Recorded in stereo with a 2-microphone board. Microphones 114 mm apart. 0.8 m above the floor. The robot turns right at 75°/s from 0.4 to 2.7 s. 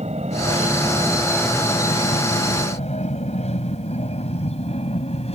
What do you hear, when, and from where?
0.0 s an aircraft: 75° right (ahead or behind); by 5.3 s 65° left (ahead or behind)